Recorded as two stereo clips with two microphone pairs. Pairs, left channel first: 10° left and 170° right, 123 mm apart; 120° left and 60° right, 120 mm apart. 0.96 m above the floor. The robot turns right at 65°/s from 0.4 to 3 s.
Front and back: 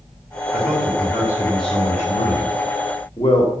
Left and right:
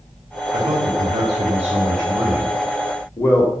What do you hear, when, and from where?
0.5 s a man speaking: 100° right, 3 m; by 3.6 s 60° left, 3 m